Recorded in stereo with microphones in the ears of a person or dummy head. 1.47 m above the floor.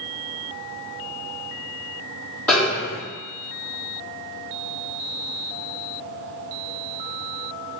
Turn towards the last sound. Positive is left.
turn(degrees=10)  # may be behind; listen again after turning